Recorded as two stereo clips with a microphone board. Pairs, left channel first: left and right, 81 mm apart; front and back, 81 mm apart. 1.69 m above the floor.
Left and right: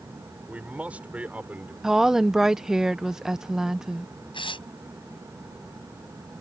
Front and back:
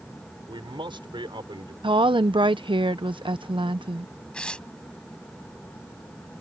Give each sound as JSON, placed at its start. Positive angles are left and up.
{"t": 0.5, "sound": "a man speaking", "azimuth_deg": -165}
{"t": 1.8, "sound": "a woman speaking", "azimuth_deg": -175}
{"t": 4.3, "sound": "tearing paper", "azimuth_deg": 80}